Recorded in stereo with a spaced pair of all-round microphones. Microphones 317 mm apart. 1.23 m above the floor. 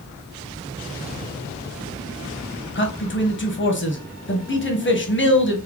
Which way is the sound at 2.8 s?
40° left (ahead or behind).